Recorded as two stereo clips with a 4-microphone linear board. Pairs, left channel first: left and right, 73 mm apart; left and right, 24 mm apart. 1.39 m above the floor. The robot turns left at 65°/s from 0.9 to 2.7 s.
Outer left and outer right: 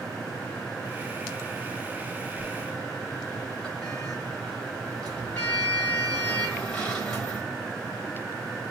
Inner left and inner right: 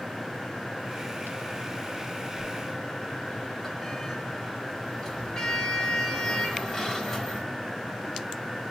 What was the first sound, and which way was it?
A sliding door, 5° right (ahead or behind).